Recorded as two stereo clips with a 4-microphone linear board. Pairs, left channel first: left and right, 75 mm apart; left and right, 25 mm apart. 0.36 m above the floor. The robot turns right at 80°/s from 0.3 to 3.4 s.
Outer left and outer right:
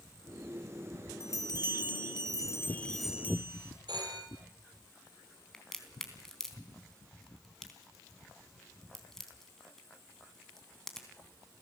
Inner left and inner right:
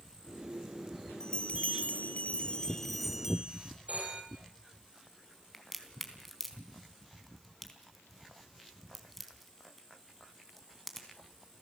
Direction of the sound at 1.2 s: 35° left.